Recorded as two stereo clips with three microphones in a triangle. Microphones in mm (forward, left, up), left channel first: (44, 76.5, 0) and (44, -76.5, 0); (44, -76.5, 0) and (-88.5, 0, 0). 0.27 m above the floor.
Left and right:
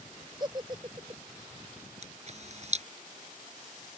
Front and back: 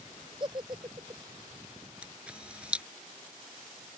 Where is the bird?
I don't hear a bird.